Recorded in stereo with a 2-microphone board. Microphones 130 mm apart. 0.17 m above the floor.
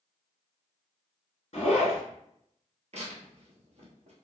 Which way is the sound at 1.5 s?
55° left (ahead or behind).